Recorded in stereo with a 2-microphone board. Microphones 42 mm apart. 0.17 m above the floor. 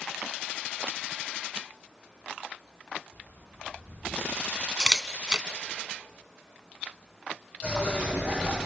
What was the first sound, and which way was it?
Footsteps, 50° left (ahead or behind).